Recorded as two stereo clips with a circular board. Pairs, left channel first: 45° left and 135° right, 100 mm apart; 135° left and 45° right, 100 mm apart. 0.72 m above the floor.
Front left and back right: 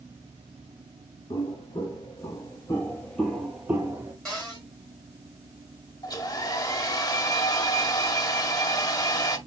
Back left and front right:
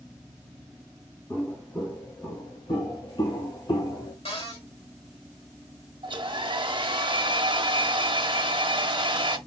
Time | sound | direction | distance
1.3 | footsteps | 75° left | 1.9 m
4.2 | a cupboard door | 130° left | 3 m
6.0 | a hair dryer | 5° right | 0.6 m